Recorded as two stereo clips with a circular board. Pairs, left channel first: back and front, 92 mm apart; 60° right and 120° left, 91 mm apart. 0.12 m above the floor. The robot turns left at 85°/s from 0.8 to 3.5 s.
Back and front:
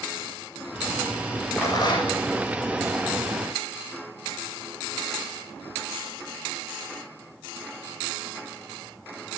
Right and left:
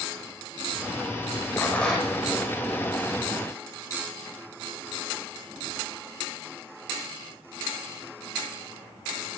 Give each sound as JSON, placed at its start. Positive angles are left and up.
{"t": 1.6, "sound": "a rattle", "azimuth_deg": -125, "distance_m": 7.5}